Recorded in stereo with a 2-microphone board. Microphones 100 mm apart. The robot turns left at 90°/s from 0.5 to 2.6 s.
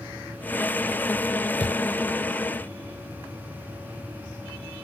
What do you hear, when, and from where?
1.6 s a thud: 80° left, 6.5 m; by 2.0 s 65° left (ahead or behind), 6.5 m